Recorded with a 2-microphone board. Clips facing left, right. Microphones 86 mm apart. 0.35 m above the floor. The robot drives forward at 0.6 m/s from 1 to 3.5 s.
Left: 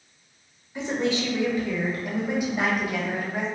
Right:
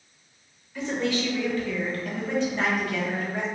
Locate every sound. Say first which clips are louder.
0.8 s a woman speaking: left 1 dB; 20° left (ahead or behind), 1.0 m; by 3.5 s 10° left (ahead or behind), 2.0 m